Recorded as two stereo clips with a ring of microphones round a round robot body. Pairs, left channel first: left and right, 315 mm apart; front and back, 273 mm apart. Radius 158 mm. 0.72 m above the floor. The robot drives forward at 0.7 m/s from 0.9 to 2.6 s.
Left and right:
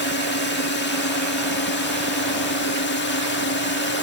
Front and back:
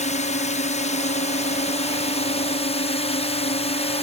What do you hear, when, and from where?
0.0 s a drone: 50° left; by 4.0 s 55° left